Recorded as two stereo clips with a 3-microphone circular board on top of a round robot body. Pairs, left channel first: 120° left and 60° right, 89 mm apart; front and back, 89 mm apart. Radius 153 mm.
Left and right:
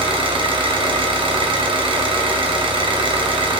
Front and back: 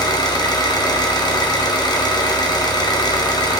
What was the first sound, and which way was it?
An engine running, 40° right.